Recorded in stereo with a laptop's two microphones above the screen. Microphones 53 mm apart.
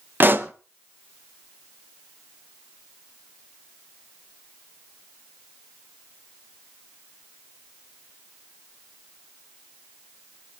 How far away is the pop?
About 0.6 m.